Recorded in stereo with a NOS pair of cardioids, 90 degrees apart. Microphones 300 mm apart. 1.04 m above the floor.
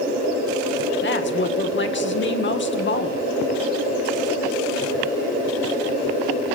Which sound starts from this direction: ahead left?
A woman speaking, at 1.0 s.